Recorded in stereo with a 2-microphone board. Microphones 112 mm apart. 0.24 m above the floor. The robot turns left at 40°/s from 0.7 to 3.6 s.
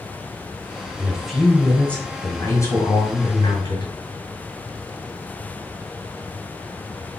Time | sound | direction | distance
1.0 | a man speaking | 165° right | 1.9 m